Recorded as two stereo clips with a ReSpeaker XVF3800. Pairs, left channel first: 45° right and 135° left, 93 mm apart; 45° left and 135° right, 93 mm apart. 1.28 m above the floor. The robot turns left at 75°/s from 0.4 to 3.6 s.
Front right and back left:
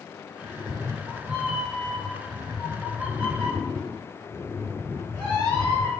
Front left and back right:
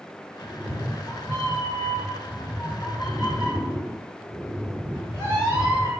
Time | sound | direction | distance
0.4 | a cat meowing | 145° left | 1.3 m